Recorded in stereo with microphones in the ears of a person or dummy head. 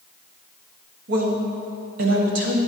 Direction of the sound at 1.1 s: 70° right (ahead or behind).